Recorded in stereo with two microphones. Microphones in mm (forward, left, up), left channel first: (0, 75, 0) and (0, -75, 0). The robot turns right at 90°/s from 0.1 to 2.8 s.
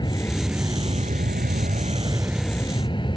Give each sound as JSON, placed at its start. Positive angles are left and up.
{"t": 0.0, "sound": "an aircraft", "azimuth_deg": 150}